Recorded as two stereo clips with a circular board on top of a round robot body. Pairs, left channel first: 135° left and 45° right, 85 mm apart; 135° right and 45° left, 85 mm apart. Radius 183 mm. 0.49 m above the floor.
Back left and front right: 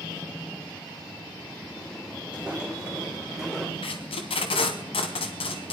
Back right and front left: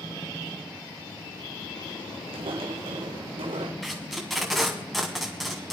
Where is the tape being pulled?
135° left, 1.0 m.